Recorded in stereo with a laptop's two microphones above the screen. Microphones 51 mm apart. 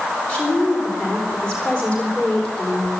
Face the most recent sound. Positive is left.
turn(degrees=20)  # may be behind; listen again after turning